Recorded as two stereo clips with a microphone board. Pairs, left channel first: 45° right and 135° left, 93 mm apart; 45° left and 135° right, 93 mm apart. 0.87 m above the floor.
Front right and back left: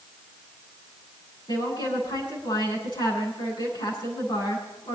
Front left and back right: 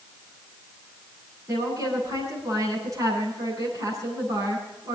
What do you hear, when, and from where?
1.5 s a woman speaking: 80° right, 9 m